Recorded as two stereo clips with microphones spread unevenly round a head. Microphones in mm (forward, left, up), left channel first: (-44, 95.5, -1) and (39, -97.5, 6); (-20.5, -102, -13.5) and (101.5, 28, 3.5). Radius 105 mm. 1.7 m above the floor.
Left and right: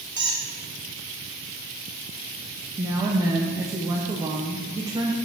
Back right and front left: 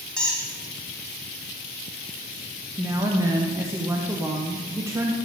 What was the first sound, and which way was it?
A squeak, 40° right.